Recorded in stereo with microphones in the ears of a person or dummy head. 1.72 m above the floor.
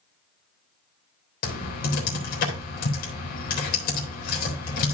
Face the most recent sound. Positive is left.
turn(degrees=50)  # may be behind; listen again after turning